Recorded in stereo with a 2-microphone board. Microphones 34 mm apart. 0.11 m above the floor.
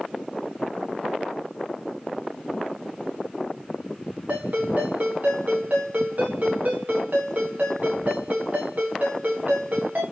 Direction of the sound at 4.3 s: 55° right (ahead or behind).